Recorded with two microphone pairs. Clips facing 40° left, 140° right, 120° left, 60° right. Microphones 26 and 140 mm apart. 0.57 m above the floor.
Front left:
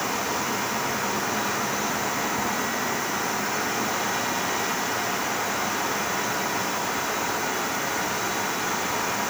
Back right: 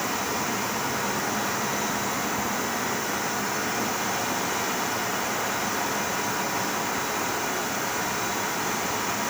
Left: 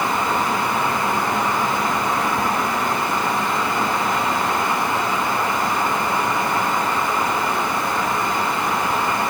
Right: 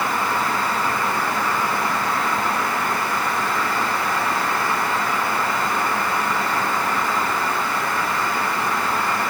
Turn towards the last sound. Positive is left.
No sound to turn to.